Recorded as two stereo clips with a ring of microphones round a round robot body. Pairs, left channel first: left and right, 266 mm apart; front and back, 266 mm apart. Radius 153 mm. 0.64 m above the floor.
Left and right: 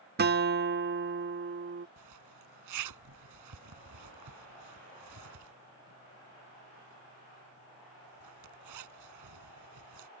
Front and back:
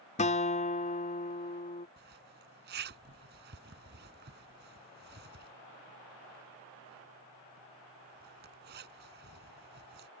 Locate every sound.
0.2 s a guitar: 55° right
2.0 s a zipper: 120° right